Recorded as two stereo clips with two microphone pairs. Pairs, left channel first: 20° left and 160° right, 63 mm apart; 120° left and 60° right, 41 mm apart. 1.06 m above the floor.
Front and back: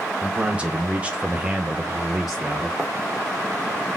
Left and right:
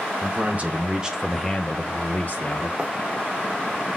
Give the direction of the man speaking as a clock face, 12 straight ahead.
3 o'clock.